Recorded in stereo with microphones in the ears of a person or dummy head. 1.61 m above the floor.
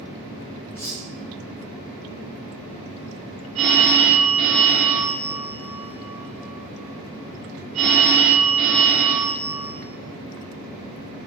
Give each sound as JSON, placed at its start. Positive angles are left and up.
{"t": 0.8, "sound": "cutlery clinking", "side_deg": -10, "distance_m": 1.8}
{"t": 3.5, "sound": "a phone ringing", "side_deg": -30, "distance_m": 0.8}